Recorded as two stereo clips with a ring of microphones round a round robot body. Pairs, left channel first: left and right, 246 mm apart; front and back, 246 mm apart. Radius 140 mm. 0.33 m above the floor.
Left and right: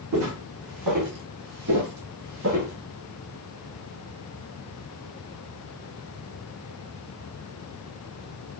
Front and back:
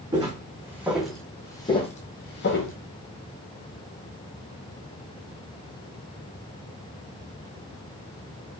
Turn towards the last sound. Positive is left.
turn(degrees=-35)